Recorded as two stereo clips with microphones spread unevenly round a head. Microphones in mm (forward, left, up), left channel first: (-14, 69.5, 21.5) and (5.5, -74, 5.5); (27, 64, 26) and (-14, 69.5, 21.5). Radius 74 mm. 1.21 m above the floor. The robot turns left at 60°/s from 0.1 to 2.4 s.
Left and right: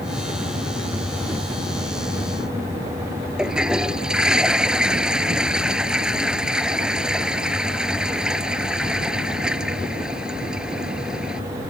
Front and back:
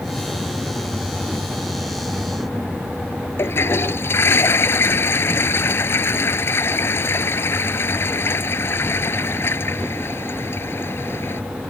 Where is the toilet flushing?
5° left.